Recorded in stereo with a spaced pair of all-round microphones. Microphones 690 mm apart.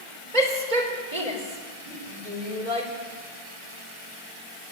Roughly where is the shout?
Right.